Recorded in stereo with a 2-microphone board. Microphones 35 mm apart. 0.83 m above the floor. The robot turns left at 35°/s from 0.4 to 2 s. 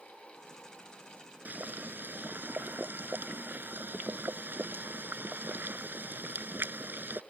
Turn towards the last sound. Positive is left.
turn(degrees=-70)  # may be behind; listen again after turning